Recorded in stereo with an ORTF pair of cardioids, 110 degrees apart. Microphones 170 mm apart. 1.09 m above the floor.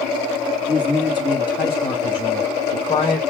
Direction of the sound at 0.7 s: 30° left.